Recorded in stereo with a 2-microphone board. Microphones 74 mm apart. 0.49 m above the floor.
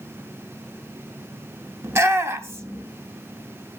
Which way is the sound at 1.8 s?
35° right (ahead or behind).